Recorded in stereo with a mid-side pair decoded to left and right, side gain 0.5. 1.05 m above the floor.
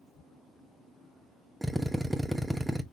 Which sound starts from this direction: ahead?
A drill, at 1.6 s.